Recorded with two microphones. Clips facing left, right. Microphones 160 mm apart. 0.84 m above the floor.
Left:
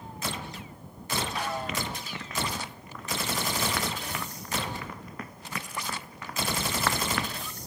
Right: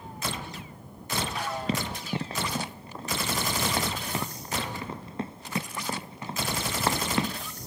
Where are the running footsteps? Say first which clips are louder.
Right 5 dB; 30° right (ahead or behind); by 7.4 s 25° right (ahead or behind).